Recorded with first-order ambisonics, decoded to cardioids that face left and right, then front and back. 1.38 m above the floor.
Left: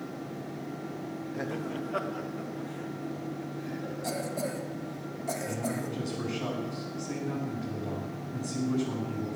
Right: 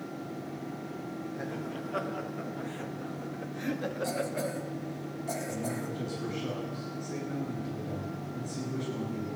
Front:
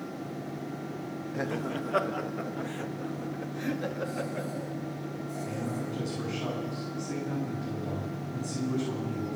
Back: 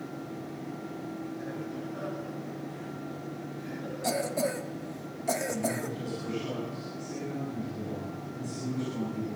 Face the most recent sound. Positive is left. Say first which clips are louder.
# left 2 dB, back 3 dB
turn(degrees=55)